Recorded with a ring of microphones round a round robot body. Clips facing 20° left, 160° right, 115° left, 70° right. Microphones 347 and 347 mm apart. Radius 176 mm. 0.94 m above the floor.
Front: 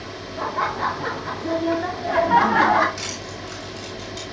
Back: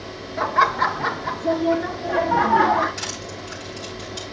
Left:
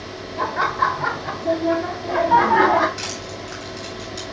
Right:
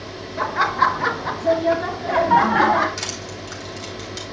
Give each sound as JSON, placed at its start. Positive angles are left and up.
{"t": 0.4, "sound": "laughter", "azimuth_deg": -115, "distance_m": 1.9}
{"t": 3.0, "sound": "crushing", "azimuth_deg": -70, "distance_m": 7.0}